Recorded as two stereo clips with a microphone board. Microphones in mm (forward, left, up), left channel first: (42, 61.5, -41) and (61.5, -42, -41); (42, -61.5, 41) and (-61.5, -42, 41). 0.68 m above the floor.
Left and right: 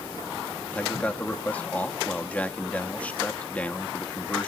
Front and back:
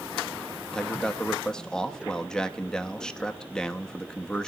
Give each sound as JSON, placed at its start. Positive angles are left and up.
{"t": 0.7, "sound": "a man speaking", "azimuth_deg": 55, "distance_m": 0.9}